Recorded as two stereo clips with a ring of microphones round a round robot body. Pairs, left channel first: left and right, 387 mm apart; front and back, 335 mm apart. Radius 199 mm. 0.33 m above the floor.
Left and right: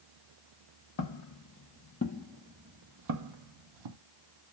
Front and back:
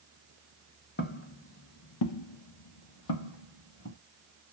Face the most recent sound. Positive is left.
turn(degrees=-65)